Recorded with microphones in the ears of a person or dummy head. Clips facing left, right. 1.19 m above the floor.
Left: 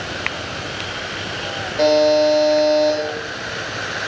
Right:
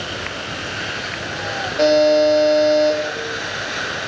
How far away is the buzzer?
About 1.8 m.